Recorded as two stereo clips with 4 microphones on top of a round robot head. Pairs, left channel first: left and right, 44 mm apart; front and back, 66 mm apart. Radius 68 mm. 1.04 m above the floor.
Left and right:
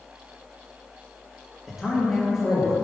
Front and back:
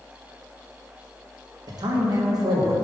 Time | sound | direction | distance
1.7 | a man speaking | 175° right | 1.5 m